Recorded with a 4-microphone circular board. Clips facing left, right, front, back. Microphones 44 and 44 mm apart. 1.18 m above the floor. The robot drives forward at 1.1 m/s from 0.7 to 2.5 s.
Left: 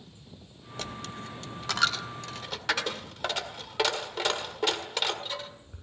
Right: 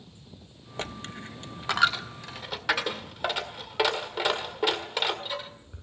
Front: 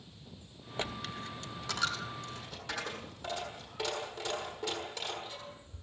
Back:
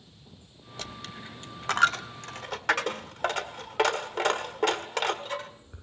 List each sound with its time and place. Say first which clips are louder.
0.8 s a dropped coin: right 2 dB, front 2 dB; 45° right, 0.7 m; by 5.8 s 170° right, 1.7 m